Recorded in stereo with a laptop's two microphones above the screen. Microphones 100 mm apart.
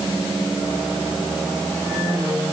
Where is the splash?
I don't hear a splash.